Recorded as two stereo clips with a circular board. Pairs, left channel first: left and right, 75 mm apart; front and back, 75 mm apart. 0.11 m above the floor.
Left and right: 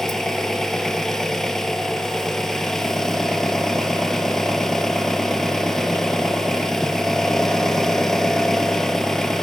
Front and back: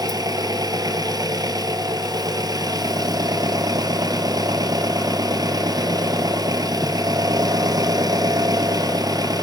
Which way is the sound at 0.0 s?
175° left.